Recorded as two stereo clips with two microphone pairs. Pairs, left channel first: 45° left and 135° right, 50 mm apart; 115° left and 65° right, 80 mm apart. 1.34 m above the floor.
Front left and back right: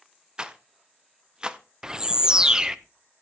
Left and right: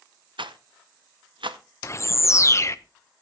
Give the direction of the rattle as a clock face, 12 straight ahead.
2 o'clock.